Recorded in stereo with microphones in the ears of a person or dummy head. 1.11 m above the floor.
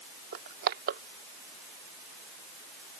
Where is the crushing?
55° right (ahead or behind).